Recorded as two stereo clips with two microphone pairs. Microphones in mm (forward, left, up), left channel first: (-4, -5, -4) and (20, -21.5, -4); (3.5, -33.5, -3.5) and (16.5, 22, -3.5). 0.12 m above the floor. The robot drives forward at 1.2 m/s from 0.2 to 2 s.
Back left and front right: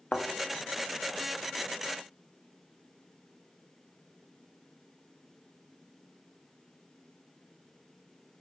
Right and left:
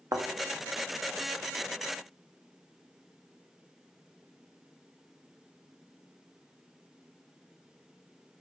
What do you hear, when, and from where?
0.1 s a thud: 95° left, 1.8 m; by 0.3 s 100° left, 1.8 m